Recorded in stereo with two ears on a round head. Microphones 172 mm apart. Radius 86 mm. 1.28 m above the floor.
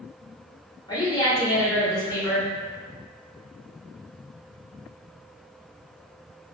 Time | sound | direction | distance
0.9 | a woman speaking | 25° left (ahead or behind) | 1.6 m